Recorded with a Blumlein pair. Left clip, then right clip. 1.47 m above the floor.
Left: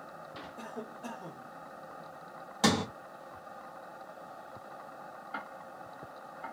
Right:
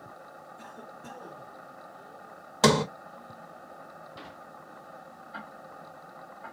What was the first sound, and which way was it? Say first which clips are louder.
A cough: left 4 dB; 55° left.